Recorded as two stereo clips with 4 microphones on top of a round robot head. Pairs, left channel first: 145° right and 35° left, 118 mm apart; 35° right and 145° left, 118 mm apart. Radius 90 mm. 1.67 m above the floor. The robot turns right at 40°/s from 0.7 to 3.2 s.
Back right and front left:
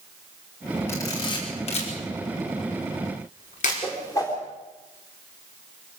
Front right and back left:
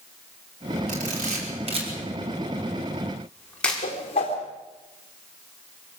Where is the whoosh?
80° right, 3.5 m.